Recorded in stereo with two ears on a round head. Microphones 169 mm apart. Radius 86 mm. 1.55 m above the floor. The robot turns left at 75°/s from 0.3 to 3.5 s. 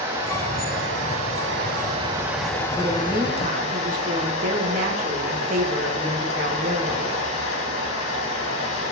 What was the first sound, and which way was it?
Running water, 25° right.